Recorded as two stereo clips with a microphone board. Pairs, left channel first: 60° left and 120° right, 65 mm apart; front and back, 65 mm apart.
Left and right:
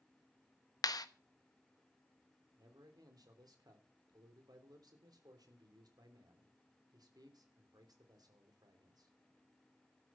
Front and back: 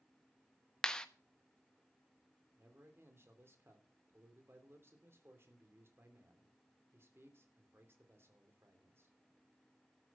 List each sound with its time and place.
0.8 s a clap: 80° left, 1.1 m
2.6 s a man speaking: 130° right, 3 m